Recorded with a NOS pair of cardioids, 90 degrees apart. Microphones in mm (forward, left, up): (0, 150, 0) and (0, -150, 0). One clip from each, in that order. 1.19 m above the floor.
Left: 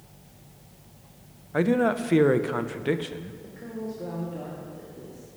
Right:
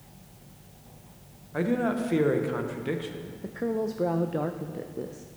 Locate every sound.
1.5 s a man speaking: 25° left, 0.6 m
3.4 s a woman speaking: 45° right, 0.5 m